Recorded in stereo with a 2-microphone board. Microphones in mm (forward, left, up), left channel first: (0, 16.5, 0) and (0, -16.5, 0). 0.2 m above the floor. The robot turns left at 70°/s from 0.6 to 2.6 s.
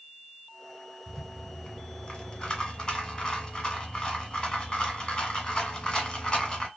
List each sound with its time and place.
1.1 s a rattle: centre (ahead or behind), 1.1 m; by 6.7 s 25° left (ahead or behind), 1.1 m